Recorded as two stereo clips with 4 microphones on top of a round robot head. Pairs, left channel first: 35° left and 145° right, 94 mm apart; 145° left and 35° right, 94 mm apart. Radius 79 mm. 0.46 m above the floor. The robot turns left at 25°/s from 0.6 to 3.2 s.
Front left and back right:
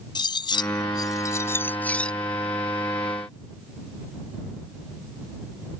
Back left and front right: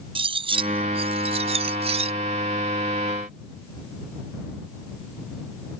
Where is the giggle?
I don't hear a giggle.